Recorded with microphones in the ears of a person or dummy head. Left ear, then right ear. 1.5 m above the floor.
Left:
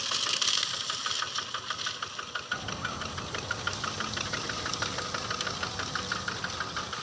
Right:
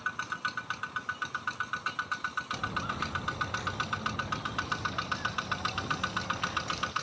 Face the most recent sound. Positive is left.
turn(degrees=-15)  # may be behind; listen again after turning